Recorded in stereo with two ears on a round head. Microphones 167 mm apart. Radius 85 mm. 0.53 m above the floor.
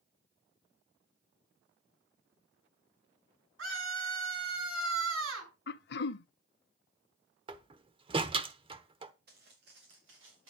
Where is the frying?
I don't hear frying.